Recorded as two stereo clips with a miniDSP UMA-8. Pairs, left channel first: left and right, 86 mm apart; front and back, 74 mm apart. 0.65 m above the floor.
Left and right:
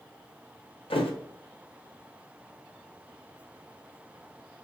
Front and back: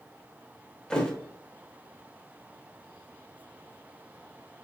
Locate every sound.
0.9 s a thud: 80° left, 0.8 m